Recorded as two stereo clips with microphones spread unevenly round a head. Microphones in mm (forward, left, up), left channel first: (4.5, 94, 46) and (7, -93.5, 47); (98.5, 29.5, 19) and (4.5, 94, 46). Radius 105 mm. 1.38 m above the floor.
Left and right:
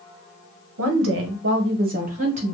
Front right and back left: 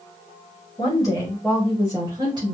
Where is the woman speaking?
100° right, 0.9 m; by 2.5 s 150° right, 1.1 m.